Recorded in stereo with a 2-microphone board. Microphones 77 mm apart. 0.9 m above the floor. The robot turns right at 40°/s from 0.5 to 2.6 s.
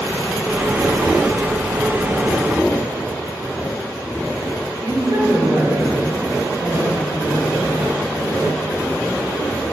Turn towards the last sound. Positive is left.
turn(degrees=-65)  # may be behind; listen again after turning